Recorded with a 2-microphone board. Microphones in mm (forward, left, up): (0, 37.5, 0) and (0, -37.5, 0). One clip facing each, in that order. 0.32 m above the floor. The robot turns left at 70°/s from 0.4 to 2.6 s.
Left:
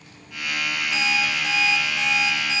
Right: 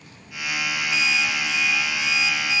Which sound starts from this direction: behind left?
An alarm clock, at 0.9 s.